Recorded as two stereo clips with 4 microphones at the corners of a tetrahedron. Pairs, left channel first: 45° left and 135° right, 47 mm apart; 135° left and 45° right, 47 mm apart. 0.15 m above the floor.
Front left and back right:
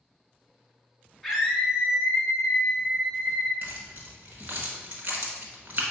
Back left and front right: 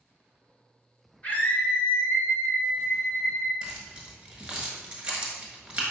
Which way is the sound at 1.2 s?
145° left.